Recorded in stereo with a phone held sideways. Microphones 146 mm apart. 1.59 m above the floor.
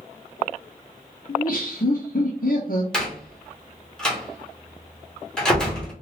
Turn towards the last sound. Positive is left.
turn(degrees=5)  # may be behind; listen again after turning